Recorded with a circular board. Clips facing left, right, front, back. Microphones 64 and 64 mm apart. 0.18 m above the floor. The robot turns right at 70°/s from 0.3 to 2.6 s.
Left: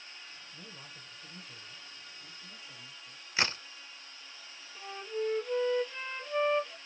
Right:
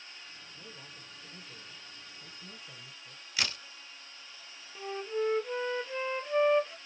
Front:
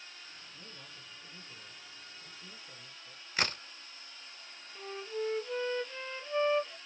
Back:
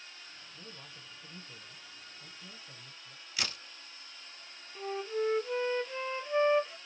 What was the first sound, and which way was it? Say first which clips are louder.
A man speaking: even, back 1 dB; 100° left.